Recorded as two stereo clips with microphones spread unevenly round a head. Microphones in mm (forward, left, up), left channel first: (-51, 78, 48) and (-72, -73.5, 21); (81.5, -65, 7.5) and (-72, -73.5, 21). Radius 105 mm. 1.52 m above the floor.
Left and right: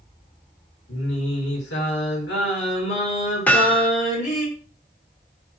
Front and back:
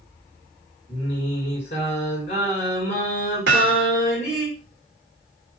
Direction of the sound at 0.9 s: 65° left.